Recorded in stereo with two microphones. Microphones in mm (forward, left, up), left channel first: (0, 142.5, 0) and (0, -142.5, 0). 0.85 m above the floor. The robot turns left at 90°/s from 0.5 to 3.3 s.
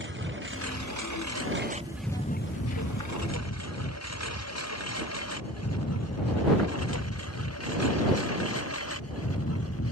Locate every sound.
0.0 s a lawn mower: 40° right (ahead or behind); by 9.9 s 55° left (ahead or behind)